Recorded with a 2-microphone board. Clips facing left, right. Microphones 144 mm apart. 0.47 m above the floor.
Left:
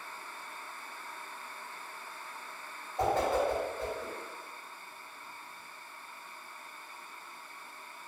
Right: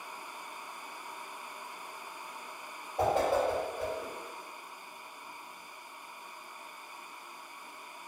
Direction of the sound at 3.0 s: 20° right (ahead or behind).